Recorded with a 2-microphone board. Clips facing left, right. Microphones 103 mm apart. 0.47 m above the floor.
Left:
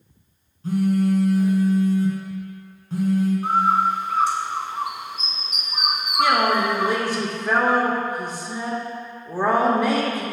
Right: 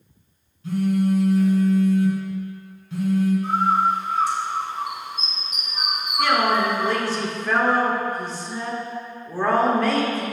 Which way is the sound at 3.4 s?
85° left.